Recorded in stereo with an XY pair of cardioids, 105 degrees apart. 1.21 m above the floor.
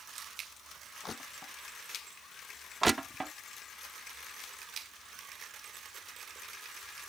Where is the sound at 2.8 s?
20° right.